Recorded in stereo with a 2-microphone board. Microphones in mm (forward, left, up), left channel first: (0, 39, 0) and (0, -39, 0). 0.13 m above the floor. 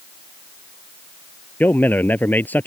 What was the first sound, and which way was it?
A man speaking, 25° left (ahead or behind).